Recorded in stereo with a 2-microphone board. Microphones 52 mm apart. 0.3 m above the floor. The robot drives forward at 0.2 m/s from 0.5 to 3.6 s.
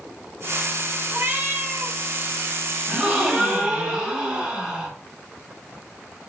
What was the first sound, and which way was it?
A cat meowing, 40° right (ahead or behind).